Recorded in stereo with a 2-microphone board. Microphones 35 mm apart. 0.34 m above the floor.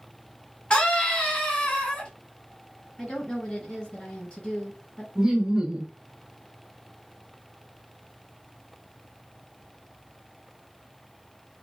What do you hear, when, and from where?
0.7 s a scream: 30° left (ahead or behind), 1.3 m
3.0 s a woman speaking: 25° left (ahead or behind), 1.9 m
5.2 s laughter: 15° right (ahead or behind), 0.9 m